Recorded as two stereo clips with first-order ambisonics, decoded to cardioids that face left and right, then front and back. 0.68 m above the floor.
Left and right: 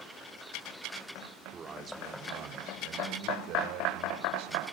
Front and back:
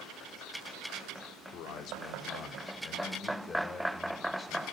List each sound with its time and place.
1.5 s a man speaking: 20° right, 2 m; by 4.6 s 80° right, 4 m